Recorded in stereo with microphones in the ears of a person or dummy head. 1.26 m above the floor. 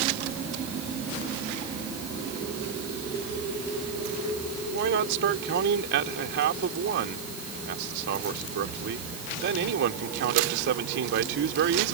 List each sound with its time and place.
4.7 s a man speaking: 60° right (ahead or behind)